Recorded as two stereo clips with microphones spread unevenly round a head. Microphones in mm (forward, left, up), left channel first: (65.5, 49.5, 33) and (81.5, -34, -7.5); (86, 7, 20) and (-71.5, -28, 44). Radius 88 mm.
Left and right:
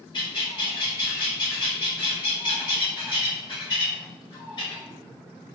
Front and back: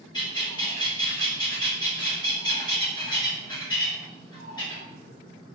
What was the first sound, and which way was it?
A bird, 80° left.